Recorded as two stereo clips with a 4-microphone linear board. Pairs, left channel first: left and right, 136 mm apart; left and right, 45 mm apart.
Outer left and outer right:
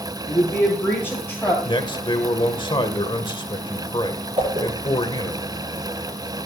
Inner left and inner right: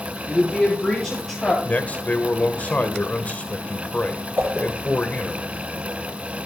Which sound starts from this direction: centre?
A woman speaking, at 0.3 s.